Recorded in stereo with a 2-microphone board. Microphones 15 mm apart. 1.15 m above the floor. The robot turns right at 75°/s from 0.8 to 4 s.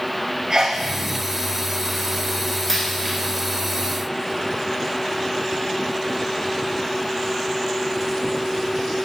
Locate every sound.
0.5 s a sneeze: 45° right (ahead or behind), 0.7 m; by 0.8 s 50° right (ahead or behind), 0.7 m
2.7 s a dropped coin: 10° left (ahead or behind), 3.5 m; by 3.1 s 25° right (ahead or behind), 3.5 m